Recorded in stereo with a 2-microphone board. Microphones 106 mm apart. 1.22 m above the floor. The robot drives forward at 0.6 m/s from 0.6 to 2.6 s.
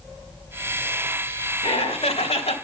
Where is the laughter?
75° left (ahead or behind), 2.0 m.